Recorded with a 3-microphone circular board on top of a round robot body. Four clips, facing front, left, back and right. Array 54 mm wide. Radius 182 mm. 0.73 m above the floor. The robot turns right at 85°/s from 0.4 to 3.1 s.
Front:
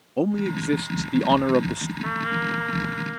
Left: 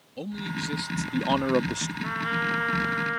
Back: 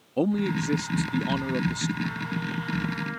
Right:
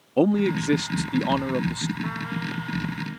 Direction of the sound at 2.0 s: Straight ahead.